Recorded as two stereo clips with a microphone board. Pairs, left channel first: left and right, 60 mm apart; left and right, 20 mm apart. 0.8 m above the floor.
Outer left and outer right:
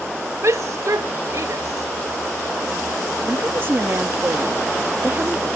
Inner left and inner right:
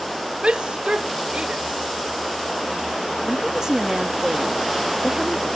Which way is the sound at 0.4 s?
55° right (ahead or behind).